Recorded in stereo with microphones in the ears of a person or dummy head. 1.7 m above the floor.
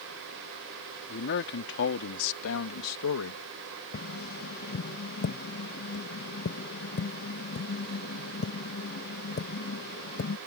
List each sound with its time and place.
1.1 s a man speaking: 55° left (ahead or behind); by 3.4 s 80° left
3.9 s tapping: 50° left (ahead or behind)